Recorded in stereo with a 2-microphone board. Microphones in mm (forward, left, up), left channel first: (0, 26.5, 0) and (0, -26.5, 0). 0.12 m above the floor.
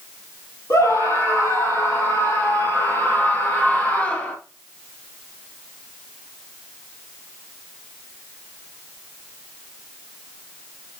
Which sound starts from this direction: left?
A scream, at 0.7 s.